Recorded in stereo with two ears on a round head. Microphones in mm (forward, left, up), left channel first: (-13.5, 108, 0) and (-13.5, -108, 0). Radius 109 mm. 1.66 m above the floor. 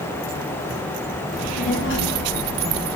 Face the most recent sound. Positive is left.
turn(degrees=10)  # may be behind; listen again after turning